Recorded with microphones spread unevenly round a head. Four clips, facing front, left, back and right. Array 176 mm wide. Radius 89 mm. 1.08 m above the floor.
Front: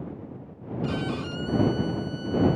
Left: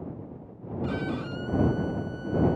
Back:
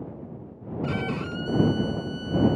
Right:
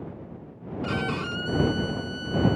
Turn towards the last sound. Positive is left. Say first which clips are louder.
# right 2 dB, even
turn(degrees=-125)